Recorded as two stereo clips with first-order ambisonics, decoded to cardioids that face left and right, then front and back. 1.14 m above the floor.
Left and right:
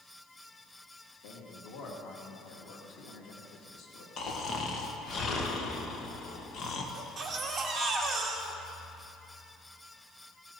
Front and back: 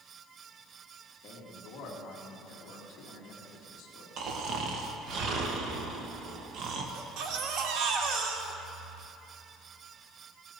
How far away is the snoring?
About 1.2 m.